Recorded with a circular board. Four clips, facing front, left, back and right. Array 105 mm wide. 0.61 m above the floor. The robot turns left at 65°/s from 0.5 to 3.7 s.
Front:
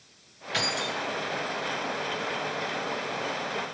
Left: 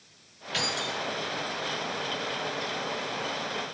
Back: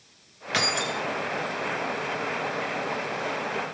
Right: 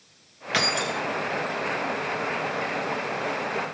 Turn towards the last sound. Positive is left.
turn(degrees=35)